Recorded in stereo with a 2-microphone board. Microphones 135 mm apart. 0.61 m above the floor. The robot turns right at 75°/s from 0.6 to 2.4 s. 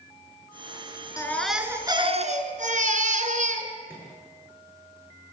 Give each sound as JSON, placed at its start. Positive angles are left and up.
{"t": 1.2, "sound": "a baby crying", "azimuth_deg": 155, "distance_m": 2.5}
{"t": 3.9, "sound": "a microwave", "side_deg": -15, "distance_m": 9.5}